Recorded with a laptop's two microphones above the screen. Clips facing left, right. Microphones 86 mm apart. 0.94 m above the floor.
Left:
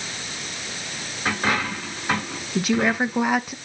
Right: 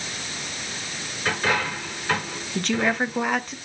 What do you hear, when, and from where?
1.2 s a dropped coin: 25° left (ahead or behind), 4 m
2.5 s a woman speaking: 5° left (ahead or behind), 0.6 m